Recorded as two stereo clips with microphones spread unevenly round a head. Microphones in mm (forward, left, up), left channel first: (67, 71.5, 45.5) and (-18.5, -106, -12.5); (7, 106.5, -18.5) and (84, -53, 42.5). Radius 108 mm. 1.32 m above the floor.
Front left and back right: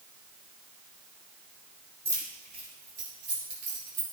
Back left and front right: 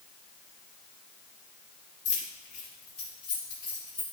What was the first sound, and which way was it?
Keys jangling, 160° left.